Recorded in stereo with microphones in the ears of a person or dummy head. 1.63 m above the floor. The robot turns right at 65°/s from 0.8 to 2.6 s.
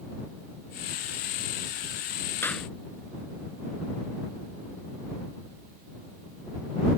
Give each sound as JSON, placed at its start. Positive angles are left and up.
{"t": 2.4, "sound": "a clap", "side_deg": 10}